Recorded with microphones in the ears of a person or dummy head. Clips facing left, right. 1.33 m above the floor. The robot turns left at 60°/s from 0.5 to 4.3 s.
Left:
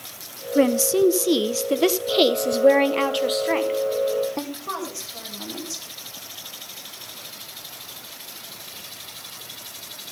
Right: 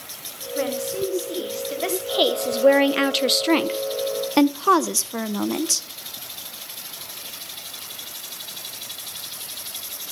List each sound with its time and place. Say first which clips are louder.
0.6 s a woman speaking: left 7 dB; 130° left, 0.6 m; by 5.9 s 95° right, 0.6 m